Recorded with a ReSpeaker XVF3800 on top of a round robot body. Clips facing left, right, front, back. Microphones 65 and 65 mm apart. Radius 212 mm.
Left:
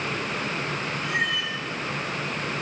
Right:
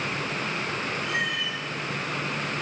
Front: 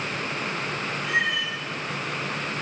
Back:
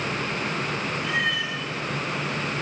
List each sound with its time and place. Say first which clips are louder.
1.0 s a cat meowing: left 4 dB, front 2 dB; 65° left, 6.5 m